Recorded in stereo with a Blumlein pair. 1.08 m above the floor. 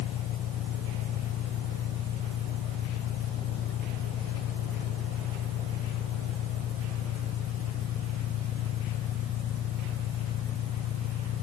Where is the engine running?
30° left.